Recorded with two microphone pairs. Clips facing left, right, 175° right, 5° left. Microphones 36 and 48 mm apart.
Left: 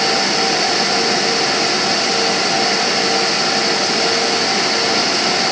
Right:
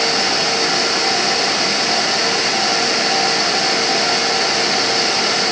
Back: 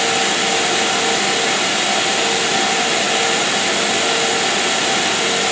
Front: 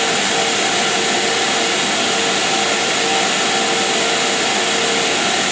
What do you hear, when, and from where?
Only background noise.